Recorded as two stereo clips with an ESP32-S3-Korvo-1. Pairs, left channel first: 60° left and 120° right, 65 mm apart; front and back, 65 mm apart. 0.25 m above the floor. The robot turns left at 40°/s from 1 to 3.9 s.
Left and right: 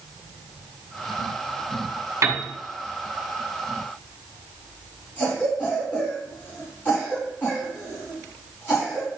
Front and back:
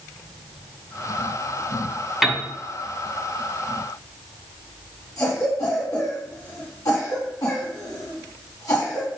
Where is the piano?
95° right, 2 m; by 2.5 s 105° right, 2 m.